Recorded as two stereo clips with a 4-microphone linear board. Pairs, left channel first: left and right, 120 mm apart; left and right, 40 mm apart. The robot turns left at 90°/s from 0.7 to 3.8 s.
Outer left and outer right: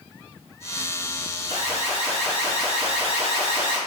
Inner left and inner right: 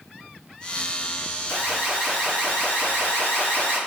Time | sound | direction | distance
1.5 | an alarm | 120° right | 2.0 m